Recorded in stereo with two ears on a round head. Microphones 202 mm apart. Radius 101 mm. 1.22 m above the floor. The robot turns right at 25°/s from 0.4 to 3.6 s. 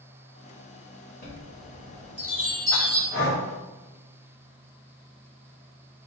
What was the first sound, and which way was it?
A chime, 45° left (ahead or behind).